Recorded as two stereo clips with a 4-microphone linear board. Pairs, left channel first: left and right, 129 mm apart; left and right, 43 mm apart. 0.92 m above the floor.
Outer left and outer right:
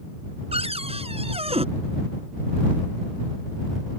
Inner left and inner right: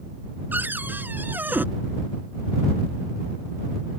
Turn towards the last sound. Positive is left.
turn(degrees=-50)  # may be behind; listen again after turning